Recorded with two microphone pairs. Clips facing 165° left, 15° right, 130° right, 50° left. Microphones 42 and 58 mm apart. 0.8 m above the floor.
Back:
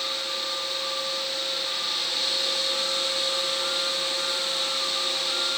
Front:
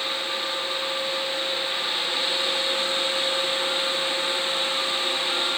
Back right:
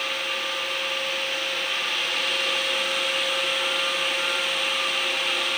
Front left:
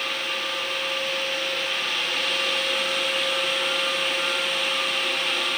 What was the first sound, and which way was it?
Only background noise.